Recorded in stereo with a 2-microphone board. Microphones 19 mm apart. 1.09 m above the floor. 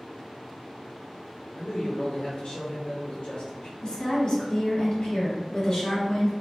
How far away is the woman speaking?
About 1.6 m.